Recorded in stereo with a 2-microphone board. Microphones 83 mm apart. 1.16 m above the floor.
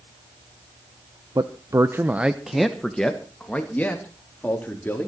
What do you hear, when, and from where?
1.4 s a man speaking: 50° right (ahead or behind), 0.9 m; by 5.1 s 25° left (ahead or behind), 3.5 m